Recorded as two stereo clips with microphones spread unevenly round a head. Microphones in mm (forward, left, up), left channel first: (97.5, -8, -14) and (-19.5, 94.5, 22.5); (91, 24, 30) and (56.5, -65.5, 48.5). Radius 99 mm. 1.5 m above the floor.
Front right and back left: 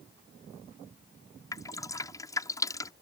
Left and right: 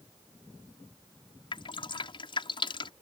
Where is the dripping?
35° left.